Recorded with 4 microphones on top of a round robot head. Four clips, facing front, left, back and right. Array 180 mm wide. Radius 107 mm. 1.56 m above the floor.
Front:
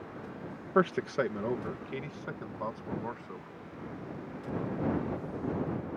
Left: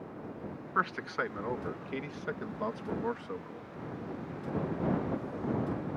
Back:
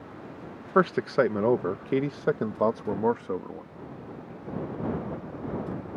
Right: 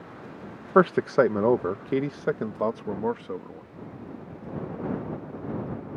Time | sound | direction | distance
0.8 | a man speaking | 95° right | ?